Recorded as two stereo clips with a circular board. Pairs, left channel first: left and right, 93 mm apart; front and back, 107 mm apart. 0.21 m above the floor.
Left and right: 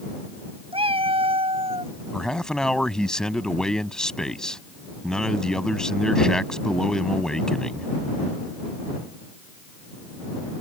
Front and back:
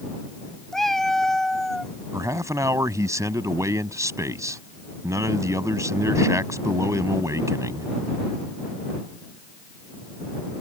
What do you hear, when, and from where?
0.7 s a cat meowing: 90° right; by 1.9 s 85° right
2.1 s a man speaking: 165° left